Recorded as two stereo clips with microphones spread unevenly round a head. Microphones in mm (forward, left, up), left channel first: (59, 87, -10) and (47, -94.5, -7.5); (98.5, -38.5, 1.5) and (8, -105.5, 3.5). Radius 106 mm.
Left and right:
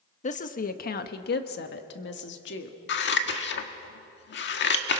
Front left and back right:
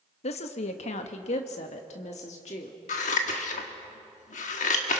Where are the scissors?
65° left, 1.4 m.